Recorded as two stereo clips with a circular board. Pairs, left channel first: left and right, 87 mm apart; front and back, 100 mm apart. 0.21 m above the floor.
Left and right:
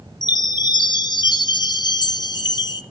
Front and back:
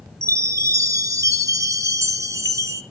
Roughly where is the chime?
Behind left.